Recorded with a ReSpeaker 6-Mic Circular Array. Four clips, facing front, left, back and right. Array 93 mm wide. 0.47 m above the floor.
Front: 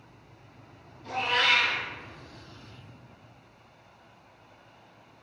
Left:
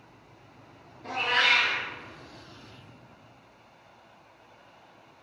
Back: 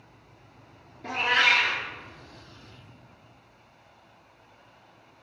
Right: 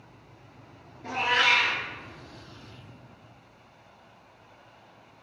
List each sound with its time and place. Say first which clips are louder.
1.0 s a cat meowing: right 2 dB, back 2 dB; 170° right, 2.5 m